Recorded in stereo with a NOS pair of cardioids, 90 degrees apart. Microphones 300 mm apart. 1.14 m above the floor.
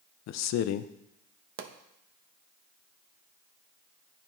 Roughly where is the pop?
Ahead right.